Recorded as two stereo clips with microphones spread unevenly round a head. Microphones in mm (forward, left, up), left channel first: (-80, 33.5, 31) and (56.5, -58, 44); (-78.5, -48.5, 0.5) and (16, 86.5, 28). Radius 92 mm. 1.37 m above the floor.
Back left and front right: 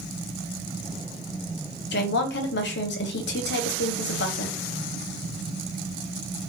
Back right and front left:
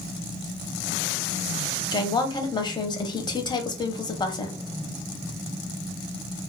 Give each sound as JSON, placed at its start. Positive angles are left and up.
{"t": 1.9, "sound": "a woman speaking", "azimuth_deg": 170, "distance_m": 0.7}